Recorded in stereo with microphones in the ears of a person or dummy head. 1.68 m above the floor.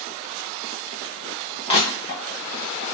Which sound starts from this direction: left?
Crushing, at 1.7 s.